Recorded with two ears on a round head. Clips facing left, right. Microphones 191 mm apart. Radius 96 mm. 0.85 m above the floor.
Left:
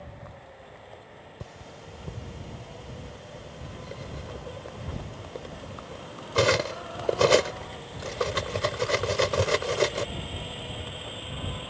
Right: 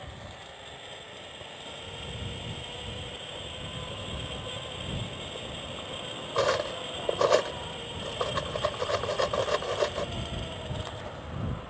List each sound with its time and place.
1.4 s cutlery clinking: 35° left (ahead or behind)